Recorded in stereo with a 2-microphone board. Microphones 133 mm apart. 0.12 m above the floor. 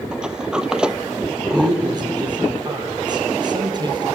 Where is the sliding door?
5° right (ahead or behind), 0.6 m.